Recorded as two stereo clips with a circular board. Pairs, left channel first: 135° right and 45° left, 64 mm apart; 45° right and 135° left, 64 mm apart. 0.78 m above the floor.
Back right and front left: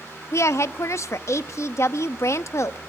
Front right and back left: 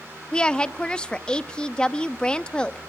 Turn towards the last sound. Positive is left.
turn(degrees=-120)